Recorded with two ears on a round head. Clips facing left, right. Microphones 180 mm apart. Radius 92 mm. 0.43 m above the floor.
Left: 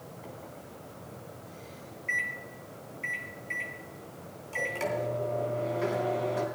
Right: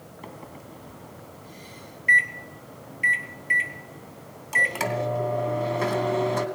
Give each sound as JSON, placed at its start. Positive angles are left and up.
{"t": 0.2, "sound": "a microwave", "side_deg": -70, "distance_m": 2.5}